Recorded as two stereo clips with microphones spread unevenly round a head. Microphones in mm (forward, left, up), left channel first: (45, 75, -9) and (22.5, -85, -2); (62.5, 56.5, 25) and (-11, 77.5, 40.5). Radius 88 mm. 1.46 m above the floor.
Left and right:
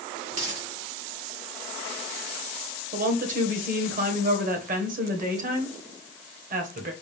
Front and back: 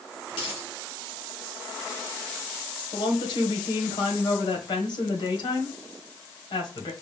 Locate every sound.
0.3 s a dropped coin: 60° right, 2.0 m
2.9 s a woman speaking: 60° right, 1.3 m